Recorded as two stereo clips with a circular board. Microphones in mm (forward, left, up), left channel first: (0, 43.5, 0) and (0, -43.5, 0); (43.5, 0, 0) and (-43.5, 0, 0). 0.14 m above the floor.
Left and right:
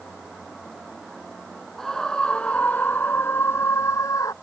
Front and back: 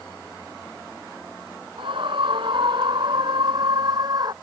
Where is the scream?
175° left; by 4.3 s 140° left.